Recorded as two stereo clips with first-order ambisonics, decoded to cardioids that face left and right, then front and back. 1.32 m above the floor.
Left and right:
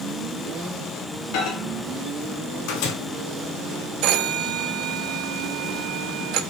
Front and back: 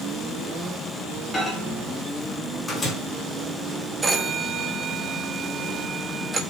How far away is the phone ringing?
About 1.0 m.